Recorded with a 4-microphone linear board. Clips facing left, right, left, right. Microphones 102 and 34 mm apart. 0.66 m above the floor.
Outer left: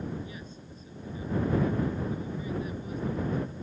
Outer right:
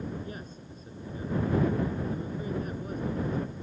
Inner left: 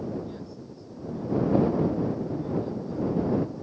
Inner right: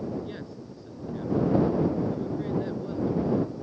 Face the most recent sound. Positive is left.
turn(degrees=-45)  # may be behind; listen again after turning